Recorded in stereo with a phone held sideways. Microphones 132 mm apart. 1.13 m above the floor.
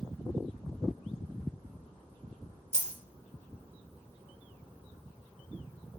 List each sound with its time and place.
2.7 s a dropped coin: 50° right (ahead or behind), 0.8 m